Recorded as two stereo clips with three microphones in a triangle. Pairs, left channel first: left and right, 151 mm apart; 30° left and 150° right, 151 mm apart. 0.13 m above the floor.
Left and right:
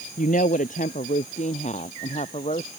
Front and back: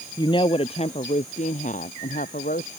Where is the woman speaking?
85° left; by 2.7 s 45° left.